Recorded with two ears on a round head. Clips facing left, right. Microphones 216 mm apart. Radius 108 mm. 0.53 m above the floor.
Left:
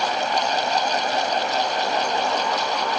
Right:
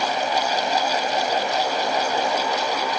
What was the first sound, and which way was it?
Only background noise.